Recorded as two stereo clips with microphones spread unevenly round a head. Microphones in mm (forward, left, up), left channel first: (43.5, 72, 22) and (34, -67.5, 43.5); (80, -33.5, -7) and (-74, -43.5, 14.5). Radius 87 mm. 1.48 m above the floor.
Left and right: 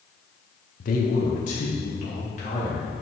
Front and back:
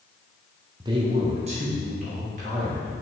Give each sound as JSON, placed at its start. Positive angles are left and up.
{"t": 0.8, "sound": "a man speaking", "azimuth_deg": 115, "distance_m": 1.0}